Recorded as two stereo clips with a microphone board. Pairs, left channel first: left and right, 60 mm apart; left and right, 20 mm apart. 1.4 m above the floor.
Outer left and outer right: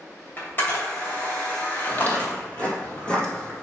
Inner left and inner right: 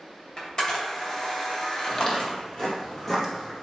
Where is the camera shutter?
35° left (ahead or behind), 2.5 m.